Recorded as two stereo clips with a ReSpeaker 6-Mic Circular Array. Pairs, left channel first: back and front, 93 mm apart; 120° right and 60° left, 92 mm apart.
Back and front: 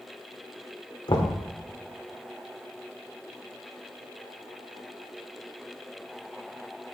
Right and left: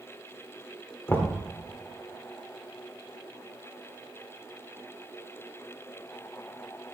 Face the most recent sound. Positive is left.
turn(degrees=180)